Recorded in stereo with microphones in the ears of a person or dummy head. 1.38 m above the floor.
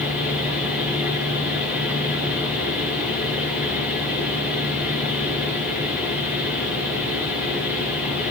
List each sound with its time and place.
0.0 s a fan: 5° right (ahead or behind), 9 m